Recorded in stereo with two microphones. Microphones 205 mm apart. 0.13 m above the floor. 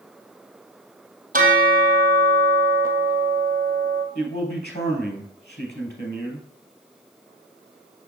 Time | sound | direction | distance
1.3 | a bell | 45° right (ahead or behind) | 1.2 m
4.2 | a man speaking | 55° left (ahead or behind) | 3 m